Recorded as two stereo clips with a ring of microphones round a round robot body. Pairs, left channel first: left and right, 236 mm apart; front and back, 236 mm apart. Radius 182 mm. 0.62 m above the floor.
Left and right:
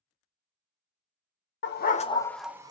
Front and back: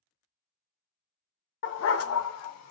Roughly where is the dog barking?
Ahead left.